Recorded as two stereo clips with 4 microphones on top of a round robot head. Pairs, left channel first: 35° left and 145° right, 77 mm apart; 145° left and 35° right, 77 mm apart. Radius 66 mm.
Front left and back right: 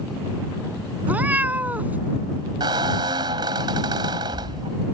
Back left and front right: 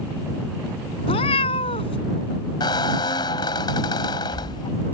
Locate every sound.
1.1 s a cat meowing: 145° left
2.6 s a squeak: straight behind